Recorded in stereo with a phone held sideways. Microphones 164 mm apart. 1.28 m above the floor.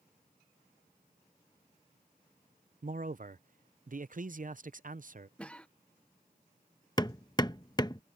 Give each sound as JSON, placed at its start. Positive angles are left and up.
{"t": 2.8, "sound": "a man speaking", "side_deg": -55}
{"t": 5.4, "sound": "a cough", "side_deg": 5}
{"t": 7.0, "sound": "hammering", "side_deg": 25}